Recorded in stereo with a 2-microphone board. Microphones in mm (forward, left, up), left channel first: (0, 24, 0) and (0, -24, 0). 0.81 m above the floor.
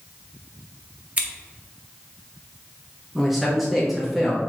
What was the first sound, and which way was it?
Scissors, 30° right (ahead or behind).